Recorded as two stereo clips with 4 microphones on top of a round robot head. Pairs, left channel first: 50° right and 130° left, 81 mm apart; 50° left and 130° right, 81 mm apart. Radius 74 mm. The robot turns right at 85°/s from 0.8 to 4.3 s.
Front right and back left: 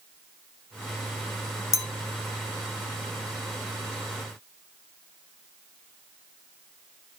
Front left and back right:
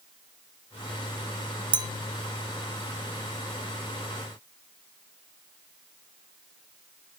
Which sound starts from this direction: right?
A clink, at 1.7 s.